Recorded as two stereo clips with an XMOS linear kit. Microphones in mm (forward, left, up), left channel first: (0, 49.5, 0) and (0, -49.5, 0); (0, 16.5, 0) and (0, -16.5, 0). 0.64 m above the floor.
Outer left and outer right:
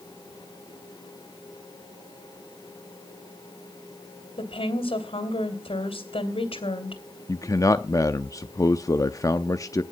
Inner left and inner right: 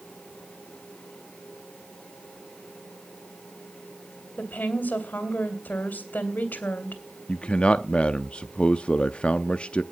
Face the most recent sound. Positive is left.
turn(degrees=35)  # may be behind; listen again after turning